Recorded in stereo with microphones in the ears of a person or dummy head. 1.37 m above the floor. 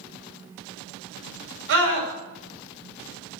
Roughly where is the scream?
Right.